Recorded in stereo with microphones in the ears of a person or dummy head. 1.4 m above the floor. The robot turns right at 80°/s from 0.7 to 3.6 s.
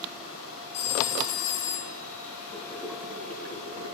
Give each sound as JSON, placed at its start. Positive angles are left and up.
{"t": 0.7, "sound": "a phone ringing", "azimuth_deg": 40, "distance_m": 3.0}
{"t": 2.5, "sound": "boiling", "azimuth_deg": 150, "distance_m": 4.0}